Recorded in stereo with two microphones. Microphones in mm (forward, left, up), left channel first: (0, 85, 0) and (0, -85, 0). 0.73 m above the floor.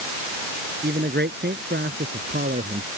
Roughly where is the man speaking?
Right.